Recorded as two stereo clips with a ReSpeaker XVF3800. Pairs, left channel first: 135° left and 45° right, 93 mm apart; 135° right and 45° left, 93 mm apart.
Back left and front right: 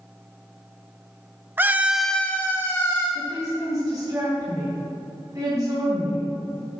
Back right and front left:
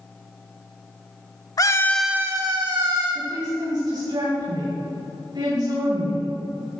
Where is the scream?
105° right, 0.9 m; by 3.0 s 75° left, 1.6 m.